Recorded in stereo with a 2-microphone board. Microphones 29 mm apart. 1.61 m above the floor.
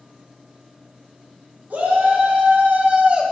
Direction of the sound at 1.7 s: 70° right (ahead or behind).